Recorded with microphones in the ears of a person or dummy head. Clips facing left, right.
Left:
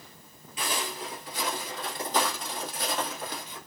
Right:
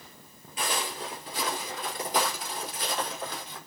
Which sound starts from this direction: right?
Footsteps, at 0.6 s.